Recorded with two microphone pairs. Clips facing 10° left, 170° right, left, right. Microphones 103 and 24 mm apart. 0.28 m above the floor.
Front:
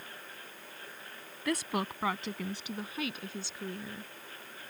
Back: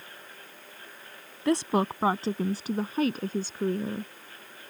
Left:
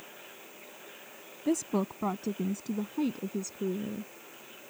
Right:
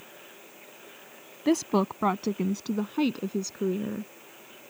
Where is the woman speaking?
110° right; by 4.1 s 130° right.